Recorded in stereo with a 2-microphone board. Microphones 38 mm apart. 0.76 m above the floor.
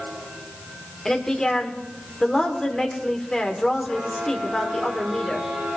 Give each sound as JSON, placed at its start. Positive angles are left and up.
{"t": 1.1, "sound": "a woman speaking", "side_deg": 15, "distance_m": 1.8}